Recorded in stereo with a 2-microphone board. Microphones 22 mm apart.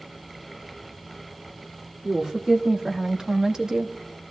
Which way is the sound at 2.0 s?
25° right (ahead or behind).